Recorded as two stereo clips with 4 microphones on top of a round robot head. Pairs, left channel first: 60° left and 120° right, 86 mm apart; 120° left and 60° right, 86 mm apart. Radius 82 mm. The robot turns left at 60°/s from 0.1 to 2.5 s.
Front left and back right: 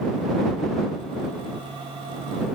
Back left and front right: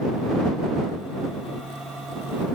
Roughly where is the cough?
No cough in this recording.